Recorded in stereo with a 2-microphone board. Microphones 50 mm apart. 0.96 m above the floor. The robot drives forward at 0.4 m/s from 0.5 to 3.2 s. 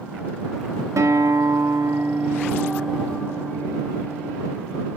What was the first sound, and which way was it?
A guitar, 80° right.